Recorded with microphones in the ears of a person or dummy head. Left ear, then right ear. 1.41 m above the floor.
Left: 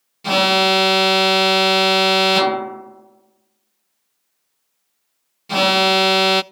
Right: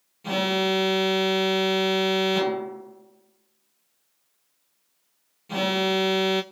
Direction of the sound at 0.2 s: 45° left (ahead or behind).